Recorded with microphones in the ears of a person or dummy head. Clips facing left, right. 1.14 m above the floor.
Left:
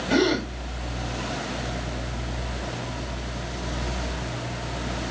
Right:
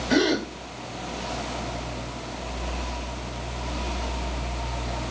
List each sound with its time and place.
0.1 s a gasp: 5° right (ahead or behind), 1.7 m